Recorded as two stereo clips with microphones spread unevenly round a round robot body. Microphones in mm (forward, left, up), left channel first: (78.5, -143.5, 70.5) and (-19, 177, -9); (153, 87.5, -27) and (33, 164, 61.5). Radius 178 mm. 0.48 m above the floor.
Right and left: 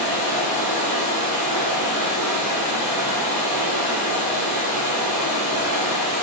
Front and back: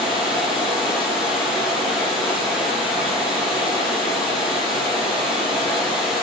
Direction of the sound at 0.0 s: 75° left.